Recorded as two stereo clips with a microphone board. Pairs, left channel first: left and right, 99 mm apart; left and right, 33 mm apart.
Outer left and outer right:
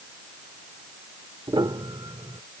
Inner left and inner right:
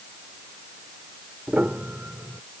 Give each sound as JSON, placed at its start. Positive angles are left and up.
{"t": 1.5, "sound": "a piano", "side_deg": -50}